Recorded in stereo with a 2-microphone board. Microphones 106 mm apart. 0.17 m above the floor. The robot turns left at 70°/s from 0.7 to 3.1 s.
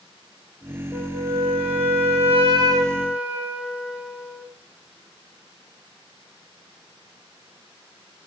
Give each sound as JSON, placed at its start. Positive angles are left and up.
{"t": 0.9, "sound": "a flute", "azimuth_deg": -15, "distance_m": 1.6}